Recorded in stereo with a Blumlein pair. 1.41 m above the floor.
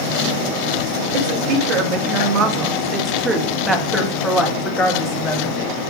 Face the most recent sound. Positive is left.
turn(degrees=30)